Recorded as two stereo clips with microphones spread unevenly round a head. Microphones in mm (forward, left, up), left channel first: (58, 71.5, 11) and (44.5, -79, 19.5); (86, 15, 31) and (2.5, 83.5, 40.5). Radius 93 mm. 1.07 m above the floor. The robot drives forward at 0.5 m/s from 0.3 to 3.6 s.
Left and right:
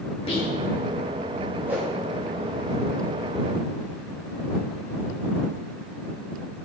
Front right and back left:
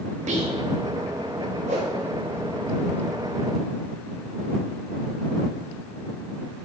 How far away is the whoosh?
About 1.2 m.